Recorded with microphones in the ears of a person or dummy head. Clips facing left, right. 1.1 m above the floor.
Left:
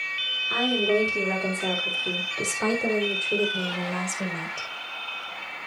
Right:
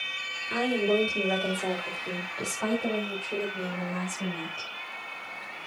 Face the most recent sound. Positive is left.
turn(degrees=75)  # may be behind; listen again after turning